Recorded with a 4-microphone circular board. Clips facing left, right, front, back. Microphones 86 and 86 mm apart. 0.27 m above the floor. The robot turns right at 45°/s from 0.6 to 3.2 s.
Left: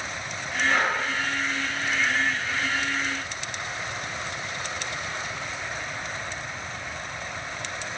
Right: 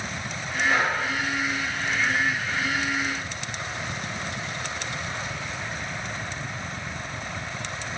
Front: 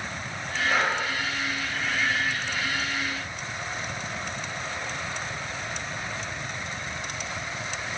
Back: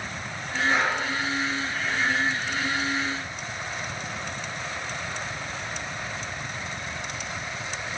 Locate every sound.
0.7 s breathing: 95° right, 1.4 m; by 1.0 s 80° right, 1.4 m